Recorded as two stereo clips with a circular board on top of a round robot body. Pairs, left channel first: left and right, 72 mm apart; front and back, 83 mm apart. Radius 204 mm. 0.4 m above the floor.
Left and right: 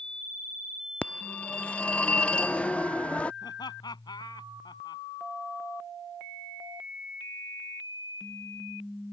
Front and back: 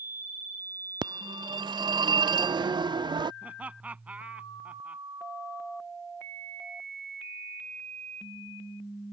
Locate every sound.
1.0 s a phone ringing: 160° left
3.4 s laughter: 105° left